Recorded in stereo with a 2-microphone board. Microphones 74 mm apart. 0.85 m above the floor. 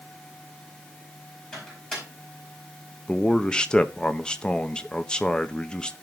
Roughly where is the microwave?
Centre.